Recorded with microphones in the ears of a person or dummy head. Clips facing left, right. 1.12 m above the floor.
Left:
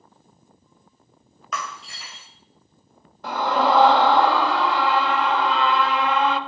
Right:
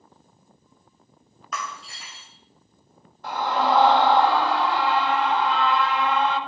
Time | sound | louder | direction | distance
1.5 | breaking glass | left 2 dB | 60° left (ahead or behind) | 1.9 m
3.2 | a scream | left 2 dB | 65° left (ahead or behind) | 1.7 m